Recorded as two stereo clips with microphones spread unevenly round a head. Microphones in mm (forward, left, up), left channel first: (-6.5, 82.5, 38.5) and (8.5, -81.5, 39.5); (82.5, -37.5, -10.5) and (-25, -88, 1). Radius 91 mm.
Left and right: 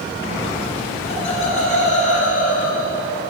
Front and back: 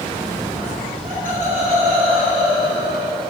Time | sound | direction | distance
1.0 | laughter | 150° left | 2 m